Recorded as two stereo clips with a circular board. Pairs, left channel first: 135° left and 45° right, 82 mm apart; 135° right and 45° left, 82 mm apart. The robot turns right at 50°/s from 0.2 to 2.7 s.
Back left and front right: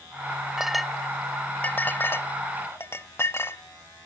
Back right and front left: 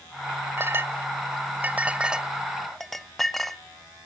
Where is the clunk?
No clunk in this recording.